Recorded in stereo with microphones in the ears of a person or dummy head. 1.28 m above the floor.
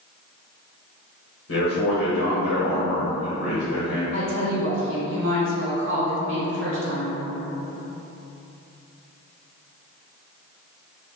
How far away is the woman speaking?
About 1.1 m.